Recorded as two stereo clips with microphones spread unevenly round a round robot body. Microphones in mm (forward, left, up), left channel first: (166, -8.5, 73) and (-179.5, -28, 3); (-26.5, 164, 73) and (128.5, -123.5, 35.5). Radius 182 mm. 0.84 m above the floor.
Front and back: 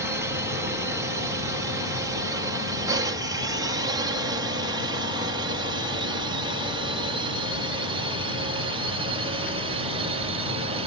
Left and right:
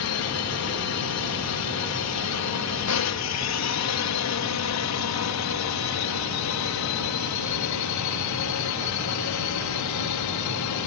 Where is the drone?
120° left; by 10.9 s 125° left.